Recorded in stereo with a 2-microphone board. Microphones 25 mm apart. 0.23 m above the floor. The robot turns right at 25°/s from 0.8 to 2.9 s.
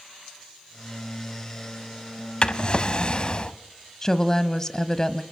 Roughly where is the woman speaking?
Left.